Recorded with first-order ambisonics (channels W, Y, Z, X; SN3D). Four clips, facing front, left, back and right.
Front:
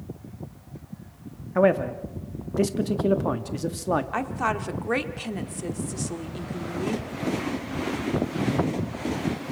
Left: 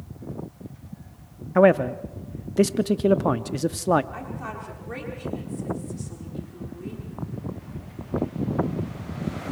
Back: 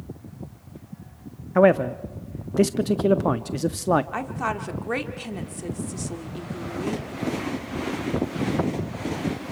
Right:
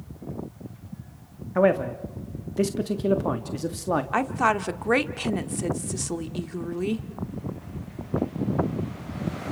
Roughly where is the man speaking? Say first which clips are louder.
Left 4 dB, back 3 dB; behind left.